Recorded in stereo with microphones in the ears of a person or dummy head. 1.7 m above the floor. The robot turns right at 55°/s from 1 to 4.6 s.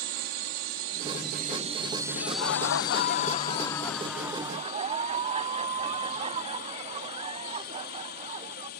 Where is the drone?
75° right; by 8.8 s 120° left.